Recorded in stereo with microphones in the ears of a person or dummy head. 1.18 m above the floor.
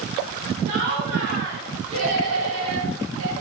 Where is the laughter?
55° right (ahead or behind), 4 m; by 3.3 s 80° right, 4 m.